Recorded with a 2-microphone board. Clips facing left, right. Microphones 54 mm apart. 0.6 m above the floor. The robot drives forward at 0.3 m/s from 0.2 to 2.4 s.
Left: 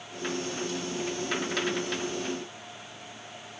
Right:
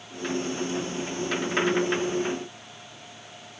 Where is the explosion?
No explosion in this recording.